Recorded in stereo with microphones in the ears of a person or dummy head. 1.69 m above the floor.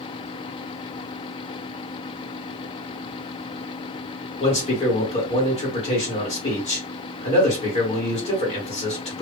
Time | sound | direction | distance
4.4 | a man speaking | 35° left (ahead or behind) | 1.9 m